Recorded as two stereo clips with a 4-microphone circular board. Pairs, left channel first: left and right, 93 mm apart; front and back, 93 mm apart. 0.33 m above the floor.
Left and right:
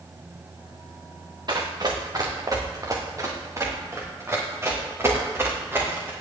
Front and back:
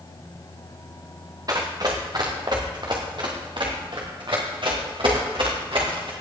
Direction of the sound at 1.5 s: 130° right.